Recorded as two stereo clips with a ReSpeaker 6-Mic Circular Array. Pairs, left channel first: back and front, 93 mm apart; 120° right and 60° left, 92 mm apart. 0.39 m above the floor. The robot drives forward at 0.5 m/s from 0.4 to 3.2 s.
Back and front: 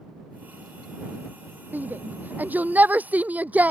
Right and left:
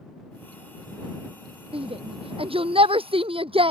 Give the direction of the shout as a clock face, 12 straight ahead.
10 o'clock.